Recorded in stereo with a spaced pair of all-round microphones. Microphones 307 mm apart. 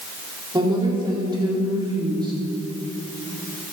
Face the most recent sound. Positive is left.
turn(degrees=-15)  # may be behind; listen again after turning